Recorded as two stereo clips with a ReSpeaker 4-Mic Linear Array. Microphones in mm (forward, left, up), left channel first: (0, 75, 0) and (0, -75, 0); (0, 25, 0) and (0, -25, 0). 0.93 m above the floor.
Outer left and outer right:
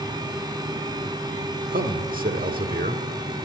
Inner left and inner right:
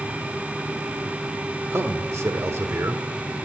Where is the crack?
I don't hear a crack.